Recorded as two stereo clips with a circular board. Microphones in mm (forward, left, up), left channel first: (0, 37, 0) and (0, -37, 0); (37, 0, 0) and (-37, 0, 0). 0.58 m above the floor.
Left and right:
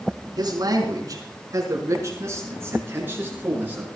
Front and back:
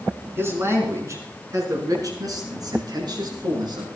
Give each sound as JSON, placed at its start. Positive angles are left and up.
{"t": 0.4, "sound": "a man speaking", "azimuth_deg": -125, "distance_m": 5.5}